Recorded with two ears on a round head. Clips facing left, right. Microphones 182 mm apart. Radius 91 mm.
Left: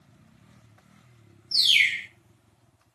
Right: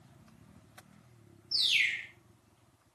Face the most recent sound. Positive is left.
turn(degrees=40)  # may be behind; listen again after turning